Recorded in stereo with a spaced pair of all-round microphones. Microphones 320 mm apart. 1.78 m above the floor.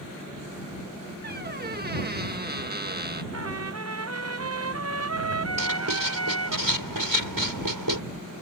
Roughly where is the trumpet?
Right.